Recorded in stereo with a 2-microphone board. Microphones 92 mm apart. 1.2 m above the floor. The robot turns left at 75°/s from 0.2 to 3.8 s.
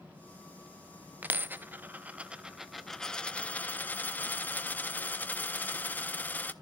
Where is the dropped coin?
20° right (ahead or behind), 0.6 m; by 6.5 s 20° left (ahead or behind), 0.6 m.